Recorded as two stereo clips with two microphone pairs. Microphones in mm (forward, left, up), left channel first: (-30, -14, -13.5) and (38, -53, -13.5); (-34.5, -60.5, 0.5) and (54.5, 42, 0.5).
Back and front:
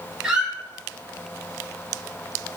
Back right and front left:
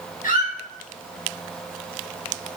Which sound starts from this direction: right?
A squeak, at 0.2 s.